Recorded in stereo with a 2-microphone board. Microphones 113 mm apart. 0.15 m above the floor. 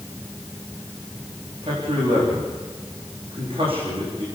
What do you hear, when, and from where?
1.6 s a man speaking: 55° right (ahead or behind), 8.5 m